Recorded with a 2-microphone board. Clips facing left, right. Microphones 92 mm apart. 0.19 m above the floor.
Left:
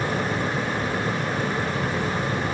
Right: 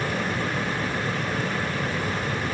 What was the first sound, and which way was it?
Only background noise.